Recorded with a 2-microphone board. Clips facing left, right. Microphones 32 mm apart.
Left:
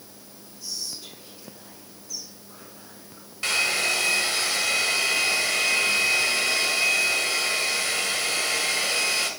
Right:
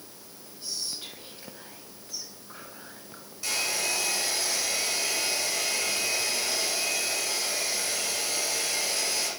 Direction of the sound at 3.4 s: 65° left (ahead or behind).